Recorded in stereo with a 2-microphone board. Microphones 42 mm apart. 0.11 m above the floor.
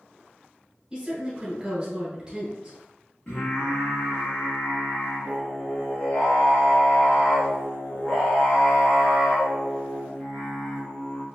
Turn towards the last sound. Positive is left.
turn(degrees=20)  # may be behind; listen again after turning